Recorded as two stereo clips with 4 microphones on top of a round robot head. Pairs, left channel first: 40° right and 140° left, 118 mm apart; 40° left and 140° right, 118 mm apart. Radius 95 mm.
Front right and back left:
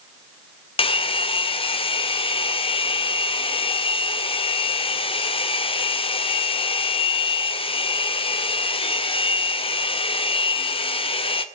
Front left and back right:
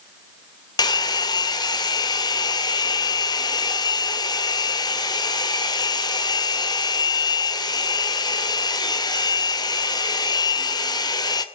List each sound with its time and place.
0.8 s a hair dryer: 10° right, 2 m